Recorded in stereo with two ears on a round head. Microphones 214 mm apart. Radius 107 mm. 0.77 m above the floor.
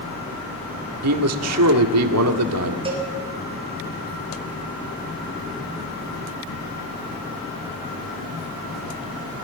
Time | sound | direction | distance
1.0 | a man speaking | 70° right (ahead or behind) | 1.8 m
2.9 | a cowbell | 25° right (ahead or behind) | 5 m